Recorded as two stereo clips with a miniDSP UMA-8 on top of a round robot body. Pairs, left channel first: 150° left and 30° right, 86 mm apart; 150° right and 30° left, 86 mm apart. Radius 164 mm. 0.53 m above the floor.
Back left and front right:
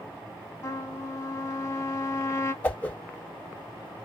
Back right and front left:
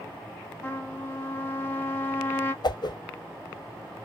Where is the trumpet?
160° left, 1.0 m.